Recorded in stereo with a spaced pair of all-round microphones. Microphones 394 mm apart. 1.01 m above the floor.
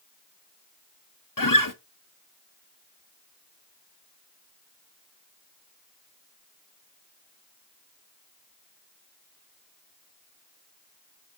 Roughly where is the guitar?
Left.